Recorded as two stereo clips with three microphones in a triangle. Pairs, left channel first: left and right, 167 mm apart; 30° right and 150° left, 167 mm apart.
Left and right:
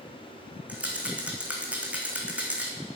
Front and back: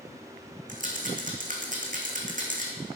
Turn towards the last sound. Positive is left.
turn(degrees=-170)